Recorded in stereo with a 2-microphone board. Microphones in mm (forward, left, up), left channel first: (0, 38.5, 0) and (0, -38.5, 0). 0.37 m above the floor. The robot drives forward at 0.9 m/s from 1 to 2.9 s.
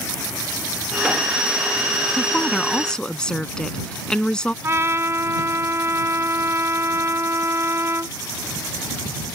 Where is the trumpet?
35° right (ahead or behind).